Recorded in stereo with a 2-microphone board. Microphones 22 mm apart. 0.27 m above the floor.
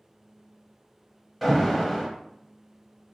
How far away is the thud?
I don't hear a thud.